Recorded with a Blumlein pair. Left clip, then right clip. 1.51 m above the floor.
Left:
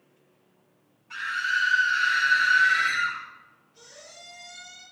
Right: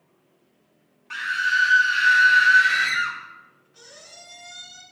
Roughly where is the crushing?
I don't hear crushing.